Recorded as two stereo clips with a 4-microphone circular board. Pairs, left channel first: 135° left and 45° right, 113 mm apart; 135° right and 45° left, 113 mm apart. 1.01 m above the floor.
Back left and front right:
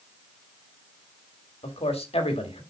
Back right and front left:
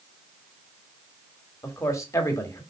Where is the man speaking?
160° left, 2 m.